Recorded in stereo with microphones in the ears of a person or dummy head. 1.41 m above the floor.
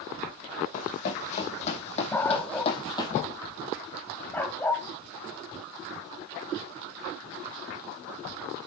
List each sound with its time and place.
0.7 s running footsteps: 40° left (ahead or behind), 3.5 m; by 3.1 s 20° left (ahead or behind), 2 m
2.1 s a dog barking: 10° left (ahead or behind), 1.7 m